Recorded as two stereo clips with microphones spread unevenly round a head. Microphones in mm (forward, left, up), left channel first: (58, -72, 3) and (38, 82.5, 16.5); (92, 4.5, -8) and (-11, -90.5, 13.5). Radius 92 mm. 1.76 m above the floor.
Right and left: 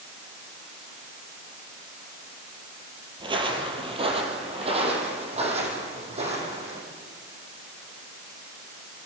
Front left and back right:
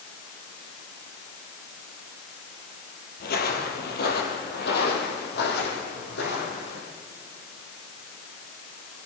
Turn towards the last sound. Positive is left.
turn(degrees=50)